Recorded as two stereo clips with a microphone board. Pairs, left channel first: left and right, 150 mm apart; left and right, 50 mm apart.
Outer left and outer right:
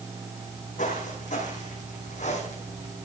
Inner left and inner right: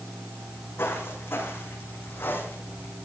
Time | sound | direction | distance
0.4 | footsteps | 55° left (ahead or behind) | 5.5 m